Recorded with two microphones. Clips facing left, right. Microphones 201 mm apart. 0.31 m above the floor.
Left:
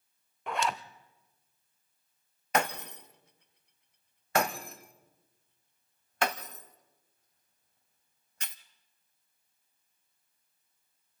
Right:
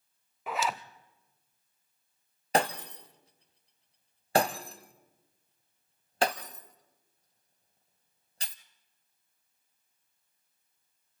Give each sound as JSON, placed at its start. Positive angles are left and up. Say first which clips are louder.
{"t": 0.5, "sound": "a zipper", "louder": "even", "side_deg": -5, "distance_m": 0.7}
{"t": 2.5, "sound": "breaking glass", "louder": "right 2 dB", "side_deg": -30, "distance_m": 0.9}